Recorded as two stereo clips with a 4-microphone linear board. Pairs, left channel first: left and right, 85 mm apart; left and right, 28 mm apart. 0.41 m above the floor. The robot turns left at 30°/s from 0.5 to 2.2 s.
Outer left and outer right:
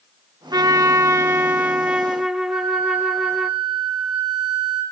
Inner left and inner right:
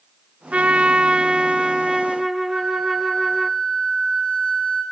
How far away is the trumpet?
About 0.6 m.